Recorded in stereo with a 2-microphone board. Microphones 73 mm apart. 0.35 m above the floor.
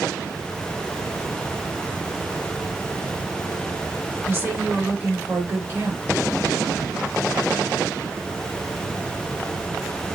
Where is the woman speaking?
30° right (ahead or behind), 1.8 m.